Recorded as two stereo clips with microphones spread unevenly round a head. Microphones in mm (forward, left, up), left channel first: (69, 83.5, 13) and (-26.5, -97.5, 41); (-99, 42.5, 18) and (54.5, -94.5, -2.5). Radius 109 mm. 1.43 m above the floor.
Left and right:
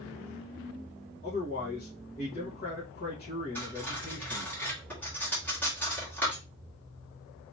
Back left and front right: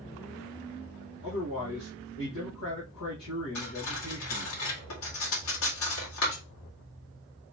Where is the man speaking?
115° left, 1.5 m.